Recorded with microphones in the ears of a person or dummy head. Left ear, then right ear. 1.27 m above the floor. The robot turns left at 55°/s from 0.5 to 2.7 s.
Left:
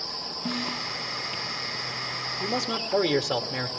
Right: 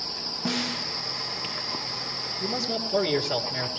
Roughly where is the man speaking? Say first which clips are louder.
Even; left.